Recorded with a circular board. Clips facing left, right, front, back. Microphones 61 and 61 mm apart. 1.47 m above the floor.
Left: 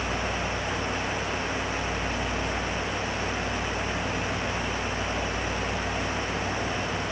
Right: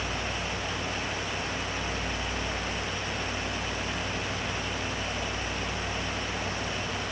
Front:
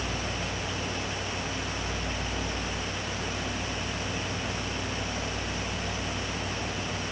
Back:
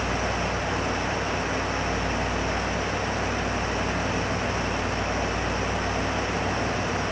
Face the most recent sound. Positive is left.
No sound to turn to.